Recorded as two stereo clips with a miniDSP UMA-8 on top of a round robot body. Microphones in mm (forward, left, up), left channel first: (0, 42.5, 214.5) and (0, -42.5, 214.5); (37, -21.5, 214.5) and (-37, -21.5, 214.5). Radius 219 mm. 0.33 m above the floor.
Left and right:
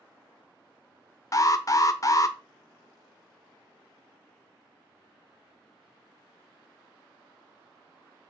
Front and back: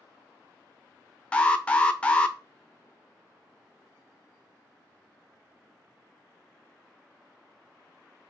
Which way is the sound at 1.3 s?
70° left.